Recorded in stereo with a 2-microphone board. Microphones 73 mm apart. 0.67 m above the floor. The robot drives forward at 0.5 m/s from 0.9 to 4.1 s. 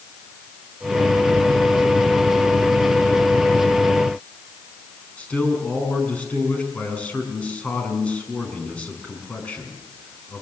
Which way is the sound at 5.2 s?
20° left (ahead or behind).